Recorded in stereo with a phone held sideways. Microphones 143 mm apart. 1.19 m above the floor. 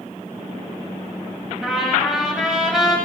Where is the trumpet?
Centre (ahead or behind), 9.5 m.